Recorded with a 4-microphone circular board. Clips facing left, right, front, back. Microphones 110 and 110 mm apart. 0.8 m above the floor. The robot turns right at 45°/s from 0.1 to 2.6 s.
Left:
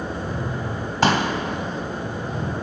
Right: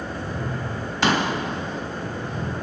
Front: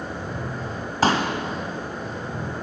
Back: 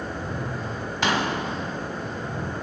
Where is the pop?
50° left, 1.7 m; by 1.3 s 60° left, 1.7 m.